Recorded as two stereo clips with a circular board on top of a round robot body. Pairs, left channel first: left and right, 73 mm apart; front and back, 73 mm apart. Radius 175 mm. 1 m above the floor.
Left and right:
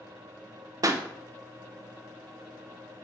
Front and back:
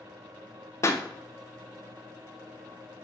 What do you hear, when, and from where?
0.8 s a pop: 50° right, 0.8 m